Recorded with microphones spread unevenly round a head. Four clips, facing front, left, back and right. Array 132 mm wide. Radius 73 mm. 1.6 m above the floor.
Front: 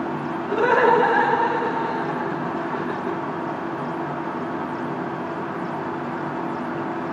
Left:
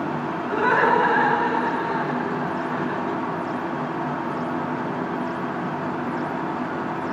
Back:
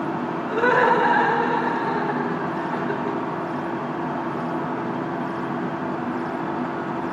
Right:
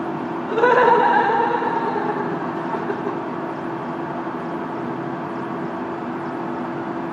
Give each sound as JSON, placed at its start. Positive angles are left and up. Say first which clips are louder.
{"t": 0.5, "sound": "laughter", "louder": "right 5 dB, front 1 dB", "azimuth_deg": -80, "distance_m": 1.9}